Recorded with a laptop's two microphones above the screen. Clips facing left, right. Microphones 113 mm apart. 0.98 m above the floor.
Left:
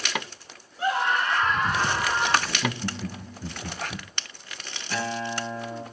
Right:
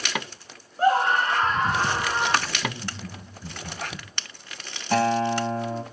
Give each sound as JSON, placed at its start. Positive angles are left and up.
{"t": 0.8, "sound": "a scream", "side_deg": -45, "distance_m": 1.2}
{"t": 2.5, "sound": "laughter", "side_deg": 80, "distance_m": 1.5}
{"t": 4.9, "sound": "a guitar", "side_deg": -70, "distance_m": 2.5}